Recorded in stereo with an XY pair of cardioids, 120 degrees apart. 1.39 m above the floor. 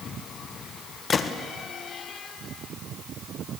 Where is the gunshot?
40° left, 1.3 m.